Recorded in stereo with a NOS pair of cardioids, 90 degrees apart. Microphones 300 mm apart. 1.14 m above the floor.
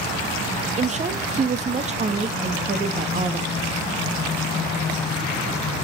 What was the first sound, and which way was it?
A woman speaking, 25° right.